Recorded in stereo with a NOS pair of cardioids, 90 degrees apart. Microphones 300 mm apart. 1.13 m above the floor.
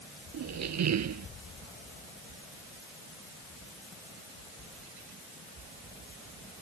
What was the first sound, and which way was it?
A squeak, 60° right.